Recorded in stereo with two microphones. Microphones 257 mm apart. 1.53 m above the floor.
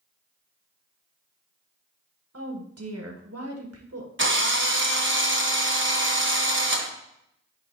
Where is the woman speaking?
65° right (ahead or behind), 1.5 m.